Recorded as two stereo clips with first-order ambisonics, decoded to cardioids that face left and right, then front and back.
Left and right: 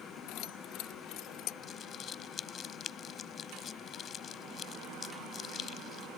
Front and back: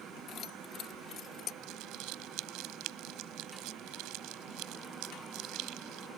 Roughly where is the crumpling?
Behind left.